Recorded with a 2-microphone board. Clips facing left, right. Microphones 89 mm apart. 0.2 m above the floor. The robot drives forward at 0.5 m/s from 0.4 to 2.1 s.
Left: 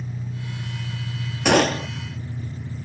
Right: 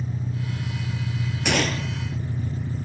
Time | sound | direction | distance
0.0 | an engine running | 40° right (ahead or behind) | 2.0 m
1.4 | a gunshot | 60° left (ahead or behind) | 0.6 m